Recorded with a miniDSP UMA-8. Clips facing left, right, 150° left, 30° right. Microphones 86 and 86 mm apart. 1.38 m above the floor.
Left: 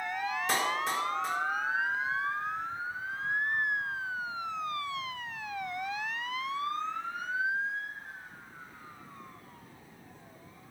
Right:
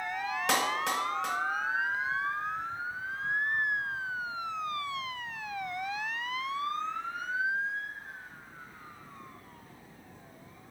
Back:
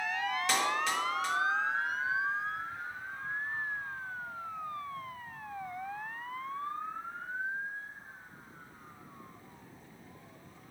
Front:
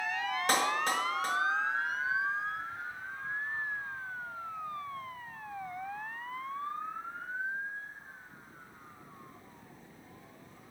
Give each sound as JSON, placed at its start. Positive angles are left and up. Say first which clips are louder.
{"t": 0.5, "sound": "a clap", "louder": "right 2 dB, front 3 dB", "azimuth_deg": -75, "distance_m": 1.6}